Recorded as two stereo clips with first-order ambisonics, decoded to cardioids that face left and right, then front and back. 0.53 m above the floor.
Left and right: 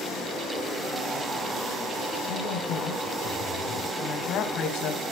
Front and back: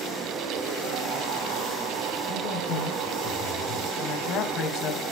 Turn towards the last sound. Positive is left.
turn(degrees=50)